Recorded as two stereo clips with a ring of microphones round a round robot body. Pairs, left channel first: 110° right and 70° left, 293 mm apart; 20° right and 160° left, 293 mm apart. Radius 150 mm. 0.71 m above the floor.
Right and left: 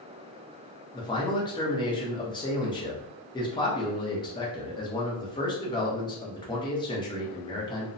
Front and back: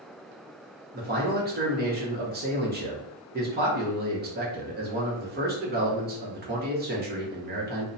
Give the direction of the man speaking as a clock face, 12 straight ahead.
6 o'clock.